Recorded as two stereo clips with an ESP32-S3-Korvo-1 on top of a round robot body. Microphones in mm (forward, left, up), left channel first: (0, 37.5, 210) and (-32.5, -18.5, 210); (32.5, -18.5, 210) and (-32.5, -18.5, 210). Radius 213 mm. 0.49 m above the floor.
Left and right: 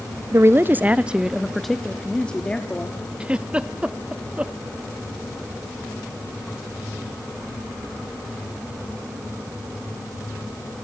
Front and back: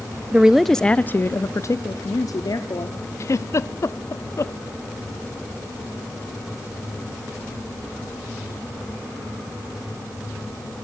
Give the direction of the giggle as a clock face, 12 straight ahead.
2 o'clock.